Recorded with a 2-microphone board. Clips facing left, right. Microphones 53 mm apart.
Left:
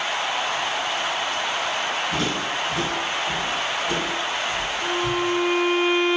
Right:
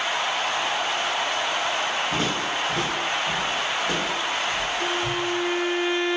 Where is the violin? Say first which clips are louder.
Left 2 dB; 50° right (ahead or behind), 0.9 m.